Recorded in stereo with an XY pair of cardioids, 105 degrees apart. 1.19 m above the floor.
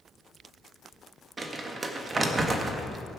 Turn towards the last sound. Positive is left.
turn(degrees=-35)